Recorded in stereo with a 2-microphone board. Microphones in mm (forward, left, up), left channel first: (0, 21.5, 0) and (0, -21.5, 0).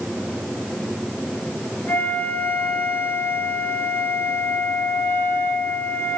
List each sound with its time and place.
1.9 s a flute: 55° left (ahead or behind), 6 m